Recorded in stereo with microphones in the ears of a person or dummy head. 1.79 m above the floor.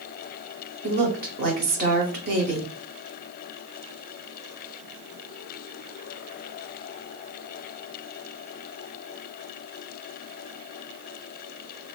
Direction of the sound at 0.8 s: 45° right (ahead or behind).